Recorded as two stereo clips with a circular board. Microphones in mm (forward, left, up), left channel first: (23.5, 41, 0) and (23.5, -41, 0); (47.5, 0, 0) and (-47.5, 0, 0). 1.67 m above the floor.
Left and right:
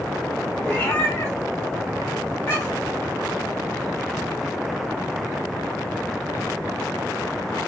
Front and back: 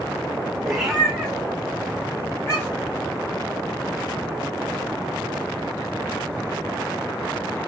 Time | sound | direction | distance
0.6 | a cat meowing | 105° left | 1.0 m